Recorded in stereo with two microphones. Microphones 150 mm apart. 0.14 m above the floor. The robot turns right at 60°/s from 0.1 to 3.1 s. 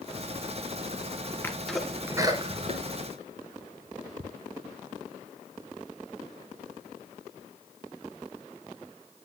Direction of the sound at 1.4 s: 15° left (ahead or behind).